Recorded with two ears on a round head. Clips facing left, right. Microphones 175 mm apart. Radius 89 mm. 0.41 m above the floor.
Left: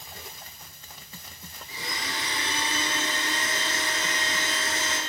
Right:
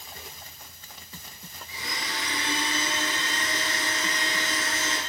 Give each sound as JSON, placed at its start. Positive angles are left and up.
{"t": 1.7, "sound": "a blender", "side_deg": 35, "distance_m": 1.9}